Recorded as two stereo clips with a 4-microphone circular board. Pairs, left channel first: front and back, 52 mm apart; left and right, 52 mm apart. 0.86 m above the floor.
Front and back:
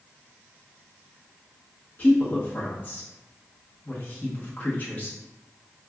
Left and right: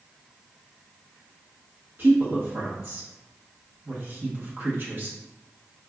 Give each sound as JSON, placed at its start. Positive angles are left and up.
{"t": 2.0, "sound": "a woman speaking", "azimuth_deg": -50, "distance_m": 1.0}